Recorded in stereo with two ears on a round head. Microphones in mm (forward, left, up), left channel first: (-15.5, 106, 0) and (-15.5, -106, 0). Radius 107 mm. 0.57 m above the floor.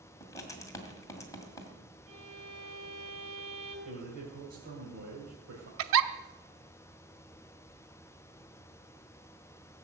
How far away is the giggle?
About 0.8 m.